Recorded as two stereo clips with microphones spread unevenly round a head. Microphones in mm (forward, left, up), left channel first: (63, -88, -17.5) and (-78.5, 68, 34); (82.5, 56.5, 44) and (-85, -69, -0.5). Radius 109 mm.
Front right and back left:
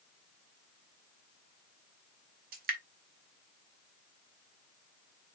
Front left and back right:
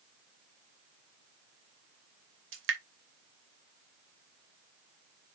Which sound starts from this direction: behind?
Dripping, at 2.5 s.